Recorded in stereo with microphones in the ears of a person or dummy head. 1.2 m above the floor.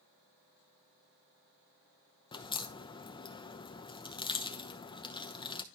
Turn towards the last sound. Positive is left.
turn(degrees=30)  # may be behind; listen again after turning